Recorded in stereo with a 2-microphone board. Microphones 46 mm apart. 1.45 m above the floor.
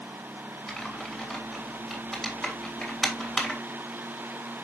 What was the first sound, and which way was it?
Typing on a keyboard, 5° left (ahead or behind).